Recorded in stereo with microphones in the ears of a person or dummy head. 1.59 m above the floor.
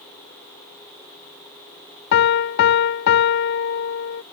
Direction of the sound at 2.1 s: 60° left (ahead or behind).